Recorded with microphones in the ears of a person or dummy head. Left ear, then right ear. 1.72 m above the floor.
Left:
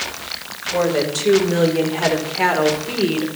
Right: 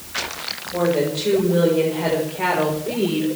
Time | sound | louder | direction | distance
0.7 | a woman speaking | left 2 dB | 65° left (ahead or behind) | 6 m